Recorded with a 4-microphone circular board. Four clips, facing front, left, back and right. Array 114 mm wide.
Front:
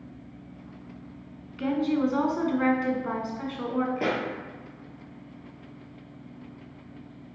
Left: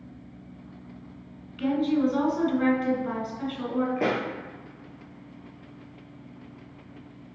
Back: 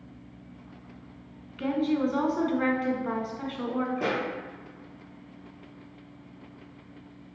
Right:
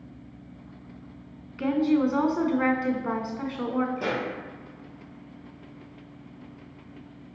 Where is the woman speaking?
80° right, 1.1 m.